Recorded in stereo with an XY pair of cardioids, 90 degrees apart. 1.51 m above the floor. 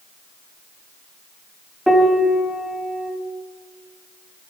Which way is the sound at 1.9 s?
5° right.